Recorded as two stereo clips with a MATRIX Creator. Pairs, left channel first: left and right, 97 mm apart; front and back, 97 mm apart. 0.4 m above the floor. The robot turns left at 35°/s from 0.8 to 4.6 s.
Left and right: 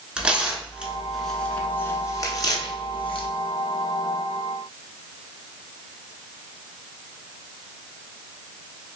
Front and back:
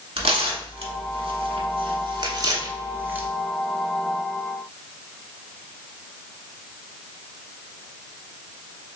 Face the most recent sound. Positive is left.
turn(degrees=60)